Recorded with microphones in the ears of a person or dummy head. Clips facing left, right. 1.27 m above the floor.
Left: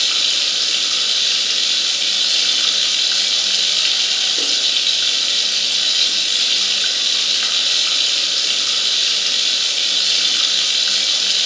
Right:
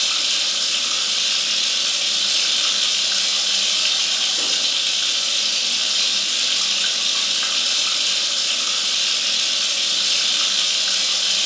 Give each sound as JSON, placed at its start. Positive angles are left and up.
{"t": 0.0, "sound": "running water", "side_deg": 30, "distance_m": 3.0}